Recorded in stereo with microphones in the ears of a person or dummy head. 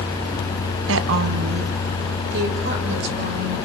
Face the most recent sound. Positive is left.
turn(degrees=-60)  # may be behind; listen again after turning